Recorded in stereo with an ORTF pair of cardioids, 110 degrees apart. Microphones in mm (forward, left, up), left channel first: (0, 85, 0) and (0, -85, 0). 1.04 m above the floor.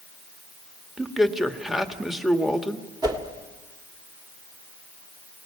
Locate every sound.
1.0 s a man speaking: straight ahead, 1.5 m
3.0 s a whoosh: 25° right, 2.5 m